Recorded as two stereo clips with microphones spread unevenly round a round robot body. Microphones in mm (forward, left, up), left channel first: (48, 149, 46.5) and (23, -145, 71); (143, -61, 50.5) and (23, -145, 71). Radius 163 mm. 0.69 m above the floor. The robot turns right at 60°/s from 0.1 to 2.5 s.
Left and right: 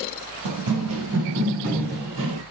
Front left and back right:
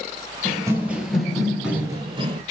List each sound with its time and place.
0.5 s running footsteps: 90° right, 1.5 m; by 2.4 s 115° right, 1.0 m